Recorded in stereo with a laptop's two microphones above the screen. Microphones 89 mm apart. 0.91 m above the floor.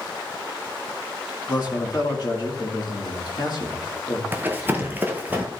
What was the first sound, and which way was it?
A man speaking, 55° left (ahead or behind).